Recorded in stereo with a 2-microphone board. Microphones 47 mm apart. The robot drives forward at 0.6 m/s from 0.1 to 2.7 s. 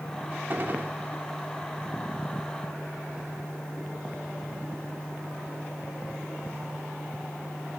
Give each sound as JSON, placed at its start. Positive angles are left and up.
{"t": 0.5, "sound": "a gunshot", "side_deg": -40, "distance_m": 1.6}